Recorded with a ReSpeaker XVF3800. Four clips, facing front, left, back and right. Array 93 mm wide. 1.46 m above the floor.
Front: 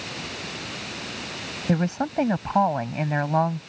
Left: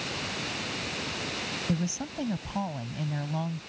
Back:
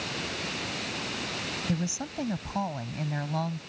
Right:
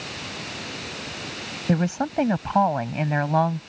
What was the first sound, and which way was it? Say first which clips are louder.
A woman speaking: right 11 dB, front 11 dB; 45° right.